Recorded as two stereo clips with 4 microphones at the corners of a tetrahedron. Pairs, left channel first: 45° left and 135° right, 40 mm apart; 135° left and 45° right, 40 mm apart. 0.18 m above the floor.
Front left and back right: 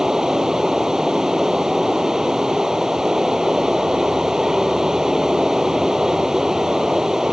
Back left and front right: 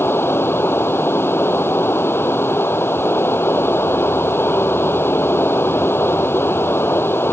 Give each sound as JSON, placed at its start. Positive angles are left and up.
{"t": 0.0, "sound": "running water", "azimuth_deg": 150}